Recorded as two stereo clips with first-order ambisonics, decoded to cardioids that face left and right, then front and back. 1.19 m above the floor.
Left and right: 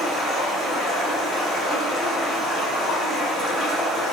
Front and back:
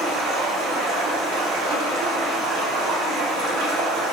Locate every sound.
0.0 s running water: 175° left, 3 m